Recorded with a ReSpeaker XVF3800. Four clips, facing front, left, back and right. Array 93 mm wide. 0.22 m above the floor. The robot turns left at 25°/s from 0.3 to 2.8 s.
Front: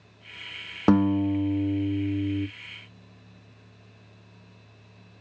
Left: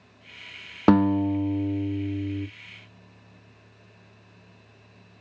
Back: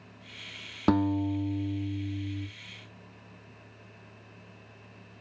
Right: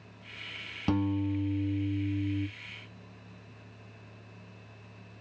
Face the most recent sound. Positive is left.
turn(degrees=25)